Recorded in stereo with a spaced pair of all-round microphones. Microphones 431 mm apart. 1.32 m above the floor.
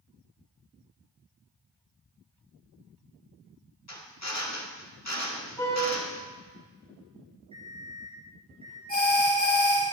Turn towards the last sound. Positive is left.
turn(degrees=20)  # may be behind; listen again after turning